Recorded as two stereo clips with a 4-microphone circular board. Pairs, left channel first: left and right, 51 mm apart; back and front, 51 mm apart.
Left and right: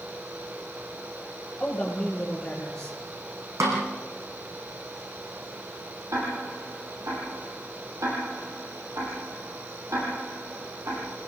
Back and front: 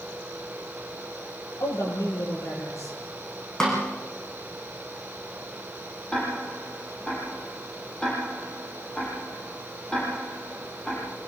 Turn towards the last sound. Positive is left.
turn(degrees=-100)